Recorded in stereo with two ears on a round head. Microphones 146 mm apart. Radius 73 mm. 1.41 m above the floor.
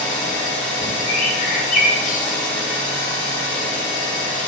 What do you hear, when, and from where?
0.0 s an engine running: 50° left (ahead or behind), 1.7 m
1.1 s a bird: 50° left (ahead or behind), 0.6 m